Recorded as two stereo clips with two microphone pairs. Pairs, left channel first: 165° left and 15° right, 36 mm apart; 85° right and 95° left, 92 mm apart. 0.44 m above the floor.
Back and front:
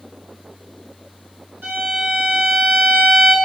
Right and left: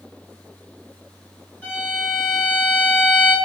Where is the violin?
15° right, 1.3 m.